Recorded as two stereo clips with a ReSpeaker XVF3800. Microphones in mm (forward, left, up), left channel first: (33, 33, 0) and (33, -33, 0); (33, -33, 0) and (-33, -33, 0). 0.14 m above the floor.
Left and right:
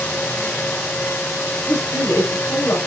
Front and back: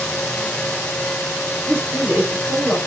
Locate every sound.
1.7 s a woman speaking: 125° left, 4.5 m